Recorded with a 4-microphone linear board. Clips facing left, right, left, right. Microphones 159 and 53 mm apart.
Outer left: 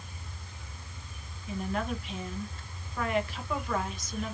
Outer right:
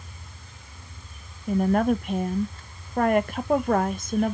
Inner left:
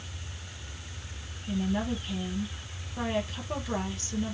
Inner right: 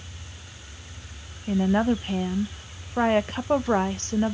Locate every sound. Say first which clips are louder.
1.5 s a woman speaking: outer right 12 dB, inner right 8 dB; 50° right (ahead or behind), 0.6 m